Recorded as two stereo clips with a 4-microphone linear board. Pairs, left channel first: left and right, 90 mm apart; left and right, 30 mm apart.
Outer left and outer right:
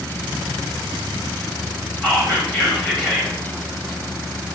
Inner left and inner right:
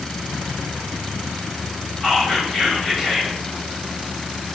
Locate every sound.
2.0 s whispering: 10° left (ahead or behind), 1.3 m